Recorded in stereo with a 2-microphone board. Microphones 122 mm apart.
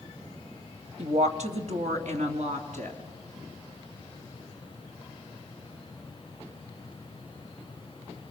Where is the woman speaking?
65° right (ahead or behind), 1.9 m; by 3.0 s 75° right (ahead or behind), 4.5 m.